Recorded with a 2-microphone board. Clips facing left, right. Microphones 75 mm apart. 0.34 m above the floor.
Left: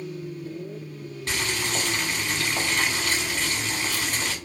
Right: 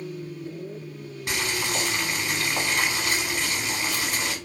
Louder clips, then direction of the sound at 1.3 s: Even; 15° right (ahead or behind).